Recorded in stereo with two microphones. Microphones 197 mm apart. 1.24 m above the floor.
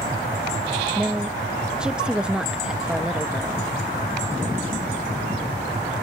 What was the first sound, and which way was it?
A woman speaking, 5° right (ahead or behind).